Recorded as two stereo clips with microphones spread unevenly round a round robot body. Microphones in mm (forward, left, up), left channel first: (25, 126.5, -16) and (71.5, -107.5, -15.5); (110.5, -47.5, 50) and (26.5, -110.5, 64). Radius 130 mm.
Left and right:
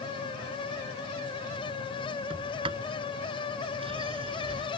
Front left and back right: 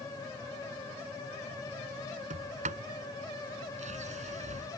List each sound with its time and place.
2.3 s a sliding door: 150° right